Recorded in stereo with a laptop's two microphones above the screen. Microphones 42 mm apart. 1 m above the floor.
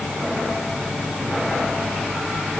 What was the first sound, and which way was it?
Only background noise.